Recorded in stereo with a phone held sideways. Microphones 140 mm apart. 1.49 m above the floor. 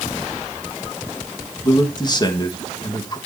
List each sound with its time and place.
1.6 s a man speaking: 30° left (ahead or behind), 1.5 m